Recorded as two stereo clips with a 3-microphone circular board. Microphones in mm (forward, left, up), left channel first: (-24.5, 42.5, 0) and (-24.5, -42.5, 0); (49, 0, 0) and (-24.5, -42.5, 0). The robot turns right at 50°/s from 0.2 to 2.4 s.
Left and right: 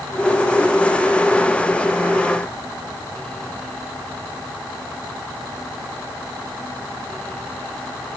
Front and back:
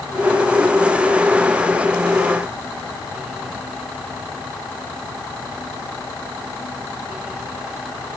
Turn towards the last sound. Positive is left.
No sound to turn to.